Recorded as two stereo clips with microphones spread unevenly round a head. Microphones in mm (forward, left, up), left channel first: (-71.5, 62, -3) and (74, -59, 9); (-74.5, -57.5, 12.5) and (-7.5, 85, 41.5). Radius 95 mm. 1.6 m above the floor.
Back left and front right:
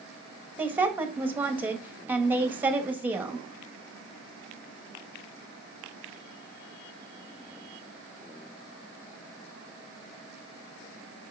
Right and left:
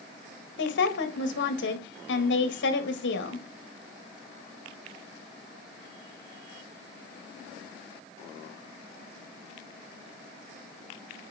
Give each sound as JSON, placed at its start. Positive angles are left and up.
{"t": 0.6, "sound": "a woman speaking", "azimuth_deg": -120, "distance_m": 1.8}